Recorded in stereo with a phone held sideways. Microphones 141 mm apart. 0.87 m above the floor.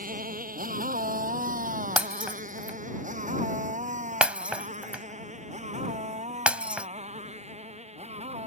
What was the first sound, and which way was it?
A motorcycle, 85° right.